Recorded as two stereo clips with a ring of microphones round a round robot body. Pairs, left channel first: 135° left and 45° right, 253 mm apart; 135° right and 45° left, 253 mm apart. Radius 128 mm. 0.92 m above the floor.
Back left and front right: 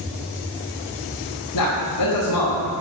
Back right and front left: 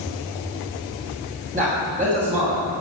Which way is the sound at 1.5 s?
110° left.